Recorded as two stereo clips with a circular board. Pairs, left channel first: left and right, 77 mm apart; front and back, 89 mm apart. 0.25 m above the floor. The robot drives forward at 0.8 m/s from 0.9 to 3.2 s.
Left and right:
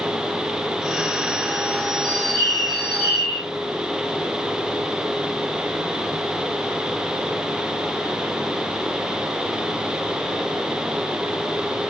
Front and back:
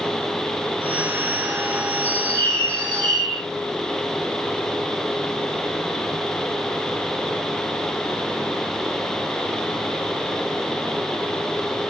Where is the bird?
70° right, 4.5 m; by 3.4 s 80° right, 4 m.